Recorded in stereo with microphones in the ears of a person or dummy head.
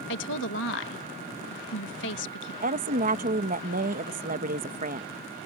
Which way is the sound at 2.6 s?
35° right (ahead or behind).